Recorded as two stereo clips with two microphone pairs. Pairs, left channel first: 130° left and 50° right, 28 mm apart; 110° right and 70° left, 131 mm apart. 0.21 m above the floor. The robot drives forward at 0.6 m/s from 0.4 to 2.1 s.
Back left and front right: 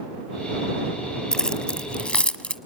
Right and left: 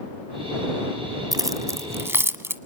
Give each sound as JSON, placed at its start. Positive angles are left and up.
{"t": 1.3, "sound": "keys jangling", "azimuth_deg": 95, "distance_m": 1.0}